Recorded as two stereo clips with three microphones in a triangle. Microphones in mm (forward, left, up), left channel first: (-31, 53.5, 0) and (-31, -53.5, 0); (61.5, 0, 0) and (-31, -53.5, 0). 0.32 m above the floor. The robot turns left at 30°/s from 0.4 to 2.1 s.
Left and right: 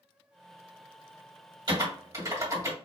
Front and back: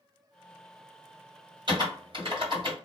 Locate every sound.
1.7 s typing on a keyboard: 125° right, 2 m; by 2.7 s 135° right, 2 m